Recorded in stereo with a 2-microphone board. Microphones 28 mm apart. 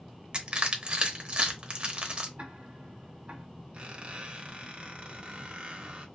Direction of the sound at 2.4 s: 65° right (ahead or behind).